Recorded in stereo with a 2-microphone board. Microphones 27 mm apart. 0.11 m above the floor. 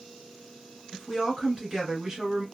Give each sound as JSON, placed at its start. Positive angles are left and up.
{"t": 0.9, "sound": "a woman speaking", "side_deg": -20, "distance_m": 1.5}